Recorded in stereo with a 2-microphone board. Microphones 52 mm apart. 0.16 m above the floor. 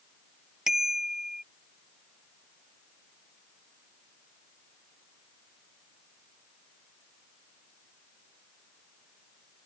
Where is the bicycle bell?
10° right (ahead or behind).